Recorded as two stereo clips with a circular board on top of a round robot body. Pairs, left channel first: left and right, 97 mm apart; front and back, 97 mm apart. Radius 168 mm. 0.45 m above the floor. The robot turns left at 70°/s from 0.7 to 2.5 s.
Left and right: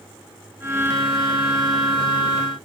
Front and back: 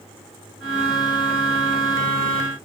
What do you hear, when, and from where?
Only background noise.